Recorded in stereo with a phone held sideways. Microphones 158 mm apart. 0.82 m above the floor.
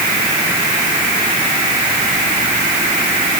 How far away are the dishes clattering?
No dishes clattering in this recording.